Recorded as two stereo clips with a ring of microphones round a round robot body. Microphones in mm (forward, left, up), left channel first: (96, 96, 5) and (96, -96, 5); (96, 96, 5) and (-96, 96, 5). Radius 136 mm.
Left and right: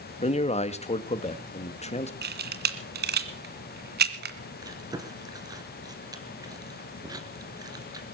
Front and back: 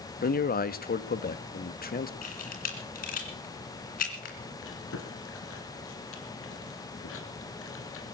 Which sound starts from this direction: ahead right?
A camera shutter, at 2.2 s.